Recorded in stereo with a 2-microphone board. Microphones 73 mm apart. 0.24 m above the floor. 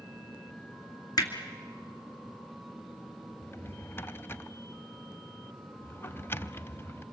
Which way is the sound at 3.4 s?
30° left (ahead or behind).